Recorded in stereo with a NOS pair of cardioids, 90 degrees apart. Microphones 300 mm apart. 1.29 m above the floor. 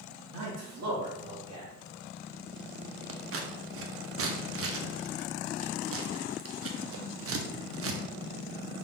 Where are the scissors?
50° right, 0.8 m.